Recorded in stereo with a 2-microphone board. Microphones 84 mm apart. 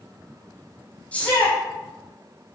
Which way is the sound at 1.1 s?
15° left (ahead or behind).